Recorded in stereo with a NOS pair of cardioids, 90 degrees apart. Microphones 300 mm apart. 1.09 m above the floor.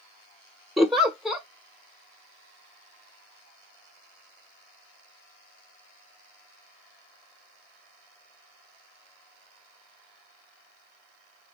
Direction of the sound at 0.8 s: Straight ahead.